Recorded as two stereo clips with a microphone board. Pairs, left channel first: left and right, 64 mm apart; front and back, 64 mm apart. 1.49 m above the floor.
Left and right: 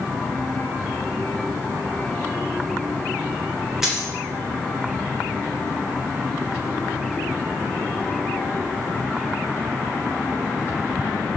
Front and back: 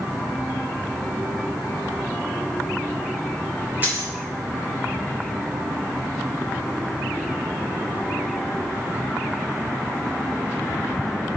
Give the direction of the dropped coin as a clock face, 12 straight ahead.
6 o'clock.